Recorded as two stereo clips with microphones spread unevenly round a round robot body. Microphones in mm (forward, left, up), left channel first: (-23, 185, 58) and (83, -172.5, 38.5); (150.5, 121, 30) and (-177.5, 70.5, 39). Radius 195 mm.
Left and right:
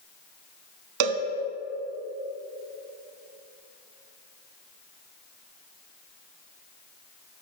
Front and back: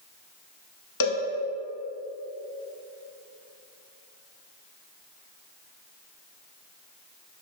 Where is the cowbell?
35° right, 0.8 m.